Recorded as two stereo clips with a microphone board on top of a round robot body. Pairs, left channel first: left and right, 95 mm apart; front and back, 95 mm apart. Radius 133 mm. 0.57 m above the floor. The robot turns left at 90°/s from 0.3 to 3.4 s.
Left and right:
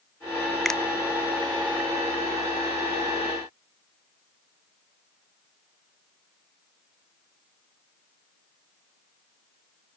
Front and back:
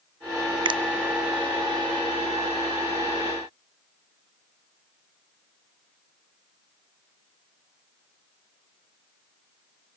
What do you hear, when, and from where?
0.7 s a finger snap: straight behind, 0.8 m; by 0.8 s 165° left, 0.8 m